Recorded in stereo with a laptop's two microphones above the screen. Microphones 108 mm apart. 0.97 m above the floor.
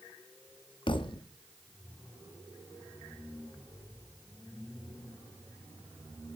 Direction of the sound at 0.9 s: 50° left (ahead or behind).